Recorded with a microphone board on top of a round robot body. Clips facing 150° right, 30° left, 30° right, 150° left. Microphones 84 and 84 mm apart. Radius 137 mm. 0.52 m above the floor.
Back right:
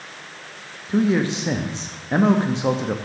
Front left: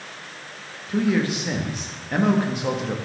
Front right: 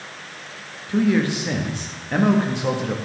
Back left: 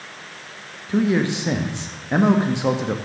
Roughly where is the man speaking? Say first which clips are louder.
Back right 2 dB, even; behind.